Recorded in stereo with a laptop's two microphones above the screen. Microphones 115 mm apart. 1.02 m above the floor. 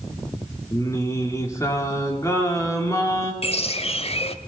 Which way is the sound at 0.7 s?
25° left (ahead or behind).